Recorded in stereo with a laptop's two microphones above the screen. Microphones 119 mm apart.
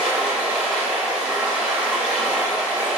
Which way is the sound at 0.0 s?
10° right (ahead or behind).